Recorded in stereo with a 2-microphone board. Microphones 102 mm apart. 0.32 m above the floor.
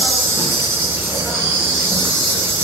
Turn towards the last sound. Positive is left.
turn(degrees=-20)  # may be behind; listen again after turning